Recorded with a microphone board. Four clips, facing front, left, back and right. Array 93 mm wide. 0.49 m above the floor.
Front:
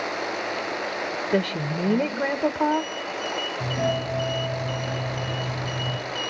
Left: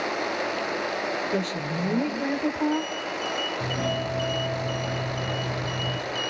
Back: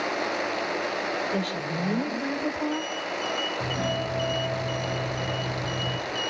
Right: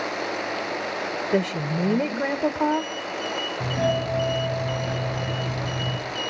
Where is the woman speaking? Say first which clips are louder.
Right 4 dB, front 4 dB; 35° right, 1.3 m.